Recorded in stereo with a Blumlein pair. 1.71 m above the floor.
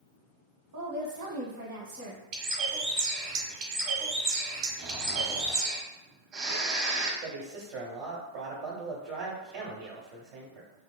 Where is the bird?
40° right, 1.0 m.